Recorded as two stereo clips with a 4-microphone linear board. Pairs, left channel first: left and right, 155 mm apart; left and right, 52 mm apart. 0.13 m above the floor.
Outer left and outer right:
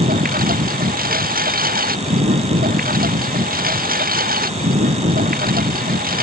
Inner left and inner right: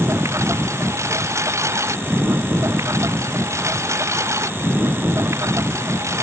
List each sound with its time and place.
0.0 s a lawn mower: 90° right